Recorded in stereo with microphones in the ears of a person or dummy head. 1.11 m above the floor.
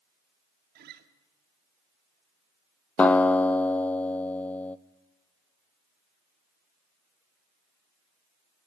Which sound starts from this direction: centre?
A guitar, at 3.0 s.